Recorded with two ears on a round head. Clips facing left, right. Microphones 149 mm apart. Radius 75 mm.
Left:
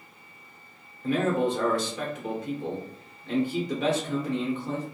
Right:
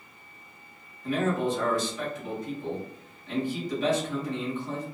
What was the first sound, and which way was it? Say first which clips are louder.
A man speaking: left 2 dB; 50° left (ahead or behind).